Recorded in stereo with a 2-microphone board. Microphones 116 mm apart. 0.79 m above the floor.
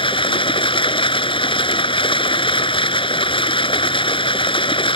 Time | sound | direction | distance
0.0 | running water | 45° left (ahead or behind) | ?